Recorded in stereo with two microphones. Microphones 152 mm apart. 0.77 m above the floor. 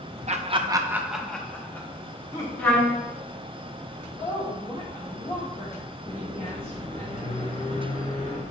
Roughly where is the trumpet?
Centre.